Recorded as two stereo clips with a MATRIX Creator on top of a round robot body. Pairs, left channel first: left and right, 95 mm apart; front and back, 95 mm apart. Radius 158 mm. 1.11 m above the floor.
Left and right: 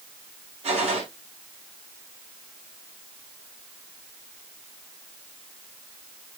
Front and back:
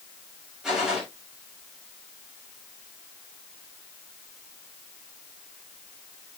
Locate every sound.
0.6 s a gunshot: 95° right, 6 m